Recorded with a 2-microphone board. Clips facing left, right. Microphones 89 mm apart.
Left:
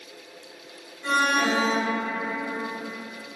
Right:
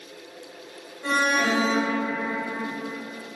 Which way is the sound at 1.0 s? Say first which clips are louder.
Even; 40° right (ahead or behind).